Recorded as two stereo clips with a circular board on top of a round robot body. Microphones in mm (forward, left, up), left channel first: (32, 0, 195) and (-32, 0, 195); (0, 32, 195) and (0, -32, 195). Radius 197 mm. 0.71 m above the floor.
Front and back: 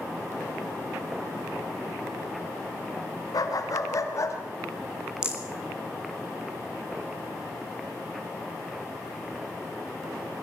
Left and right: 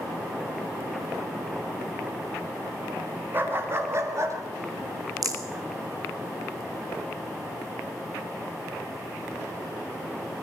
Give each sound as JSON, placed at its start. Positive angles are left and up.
{"t": 3.3, "sound": "a dog barking", "azimuth_deg": -30, "distance_m": 2.5}
{"t": 5.2, "sound": "a rattle", "azimuth_deg": -105, "distance_m": 4.5}